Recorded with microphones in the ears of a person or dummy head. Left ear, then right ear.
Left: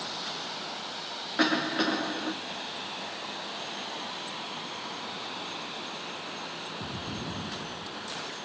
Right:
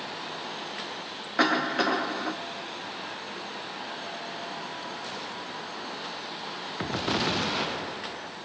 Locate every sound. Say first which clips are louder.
1.4 s a cough: right 3 dB; 30° right (ahead or behind), 0.8 m